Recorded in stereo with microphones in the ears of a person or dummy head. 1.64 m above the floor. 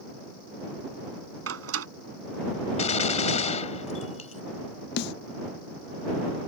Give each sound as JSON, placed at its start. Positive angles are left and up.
{"t": 1.5, "sound": "a door slam", "side_deg": -85}
{"t": 2.8, "sound": "a gunshot", "side_deg": 35}
{"t": 5.0, "sound": "a snare drum", "side_deg": 55}